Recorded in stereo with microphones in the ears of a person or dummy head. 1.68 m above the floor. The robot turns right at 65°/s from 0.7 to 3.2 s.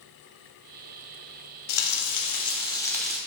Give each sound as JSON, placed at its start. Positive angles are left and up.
{"t": 1.7, "sound": "frying", "azimuth_deg": 95, "distance_m": 0.6}